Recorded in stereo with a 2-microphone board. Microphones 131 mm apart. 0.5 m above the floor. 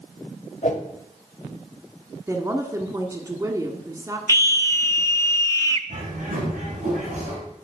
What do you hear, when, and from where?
0.6 s a whoosh: 65° left (ahead or behind), 1.3 m
2.3 s a woman speaking: 25° right (ahead or behind), 1.3 m
4.3 s a scream: 20° left (ahead or behind), 0.7 m
5.9 s a bird: 70° right (ahead or behind), 4 m